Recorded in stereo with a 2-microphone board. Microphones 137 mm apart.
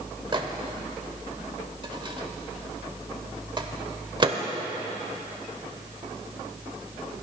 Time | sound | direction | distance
0.3 | a microwave | 35° right (ahead or behind) | 0.7 m